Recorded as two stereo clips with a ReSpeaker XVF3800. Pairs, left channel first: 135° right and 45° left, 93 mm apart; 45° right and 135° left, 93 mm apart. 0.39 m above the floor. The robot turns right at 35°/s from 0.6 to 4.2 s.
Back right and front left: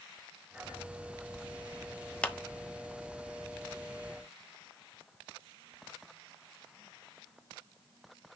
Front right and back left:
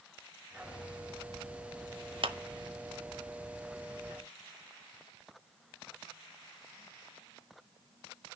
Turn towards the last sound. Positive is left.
turn(degrees=-145)